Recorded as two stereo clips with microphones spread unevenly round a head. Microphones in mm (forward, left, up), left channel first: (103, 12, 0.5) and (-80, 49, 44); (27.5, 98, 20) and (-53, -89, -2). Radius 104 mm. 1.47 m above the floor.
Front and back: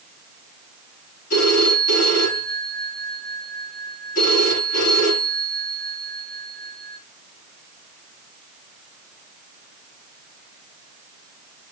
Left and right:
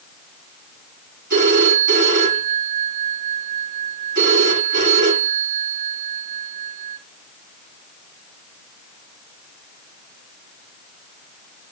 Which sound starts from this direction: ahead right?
A phone ringing, at 1.3 s.